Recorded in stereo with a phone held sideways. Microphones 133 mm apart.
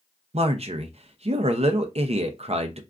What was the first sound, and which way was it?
A man speaking, 50° right (ahead or behind).